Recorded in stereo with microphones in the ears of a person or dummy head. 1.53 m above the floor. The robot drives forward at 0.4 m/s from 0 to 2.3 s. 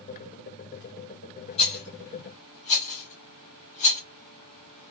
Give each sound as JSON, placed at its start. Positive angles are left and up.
{"t": 1.6, "sound": "a rattle", "side_deg": 40, "distance_m": 2.5}